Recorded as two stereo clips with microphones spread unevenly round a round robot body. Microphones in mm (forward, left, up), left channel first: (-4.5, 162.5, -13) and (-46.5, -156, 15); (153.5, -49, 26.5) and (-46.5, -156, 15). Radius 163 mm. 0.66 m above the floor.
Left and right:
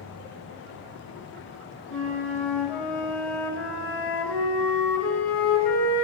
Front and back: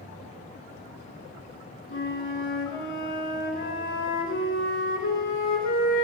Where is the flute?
5° right, 3 m.